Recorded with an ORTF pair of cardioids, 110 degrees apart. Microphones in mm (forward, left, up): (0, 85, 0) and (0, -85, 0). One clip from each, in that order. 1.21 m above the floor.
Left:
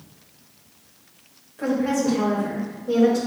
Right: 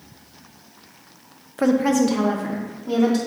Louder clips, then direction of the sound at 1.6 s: Right 4 dB; 65° right.